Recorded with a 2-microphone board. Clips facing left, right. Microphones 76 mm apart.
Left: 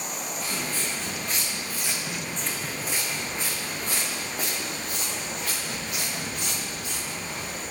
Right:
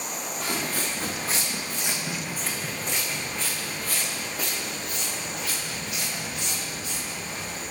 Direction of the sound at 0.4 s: 50° right (ahead or behind).